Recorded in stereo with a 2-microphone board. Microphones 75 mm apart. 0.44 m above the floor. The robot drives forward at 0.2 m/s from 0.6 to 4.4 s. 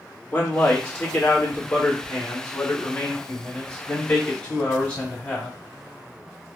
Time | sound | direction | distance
0.3 | a man speaking | 25° left (ahead or behind) | 0.8 m